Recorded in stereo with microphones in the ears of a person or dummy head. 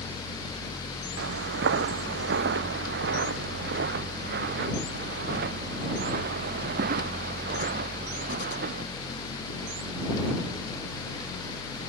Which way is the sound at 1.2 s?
70° right (ahead or behind).